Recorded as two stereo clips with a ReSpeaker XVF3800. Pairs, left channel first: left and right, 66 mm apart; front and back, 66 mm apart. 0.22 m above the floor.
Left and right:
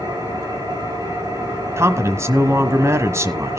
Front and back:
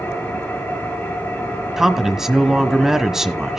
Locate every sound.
0.0 s an engine running: 70° right, 10 m
1.8 s a man speaking: 100° right, 1.3 m